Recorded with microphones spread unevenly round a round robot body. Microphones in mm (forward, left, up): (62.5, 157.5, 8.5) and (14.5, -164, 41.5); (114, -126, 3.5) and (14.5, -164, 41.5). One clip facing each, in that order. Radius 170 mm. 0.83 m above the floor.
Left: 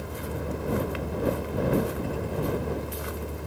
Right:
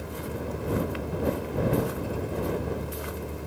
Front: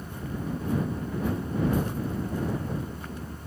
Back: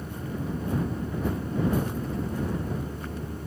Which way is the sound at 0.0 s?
175° left.